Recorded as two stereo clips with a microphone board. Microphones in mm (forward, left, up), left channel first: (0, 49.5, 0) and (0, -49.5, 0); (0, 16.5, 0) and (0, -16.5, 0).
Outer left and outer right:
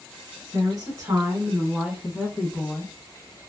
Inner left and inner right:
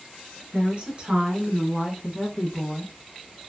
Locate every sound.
0.5 s a woman speaking: 40° right (ahead or behind), 1.5 m; by 2.9 s 10° left (ahead or behind), 1.2 m